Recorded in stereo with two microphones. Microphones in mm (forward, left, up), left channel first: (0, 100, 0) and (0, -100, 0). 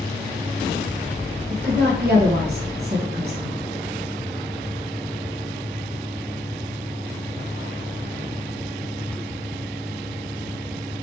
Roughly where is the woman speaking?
Right.